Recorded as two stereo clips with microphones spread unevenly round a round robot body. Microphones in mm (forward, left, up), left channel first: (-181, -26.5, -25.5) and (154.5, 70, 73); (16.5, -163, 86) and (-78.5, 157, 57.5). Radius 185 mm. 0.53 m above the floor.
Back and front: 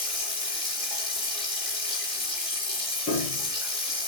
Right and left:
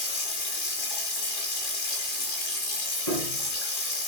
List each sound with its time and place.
0.0 s running water: 90° right, 4.5 m
3.1 s a piano: 95° right, 8 m